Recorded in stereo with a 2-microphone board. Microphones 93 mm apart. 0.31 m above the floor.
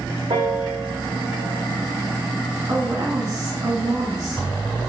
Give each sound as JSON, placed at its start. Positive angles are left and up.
{"t": 0.3, "sound": "a piano", "side_deg": -70, "distance_m": 3.0}
{"t": 2.7, "sound": "a woman speaking", "side_deg": -45, "distance_m": 3.5}